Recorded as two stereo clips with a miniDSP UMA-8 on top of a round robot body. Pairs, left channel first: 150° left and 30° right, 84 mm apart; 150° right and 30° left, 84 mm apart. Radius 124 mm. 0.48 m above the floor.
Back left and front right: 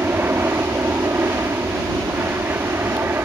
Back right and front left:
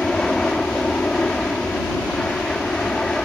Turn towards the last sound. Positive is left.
turn(degrees=-75)